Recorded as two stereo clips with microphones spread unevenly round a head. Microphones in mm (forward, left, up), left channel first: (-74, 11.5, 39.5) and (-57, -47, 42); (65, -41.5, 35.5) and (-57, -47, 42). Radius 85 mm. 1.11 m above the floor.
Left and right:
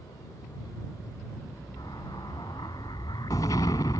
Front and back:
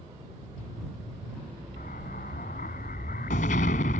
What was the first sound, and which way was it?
An explosion, 45° left.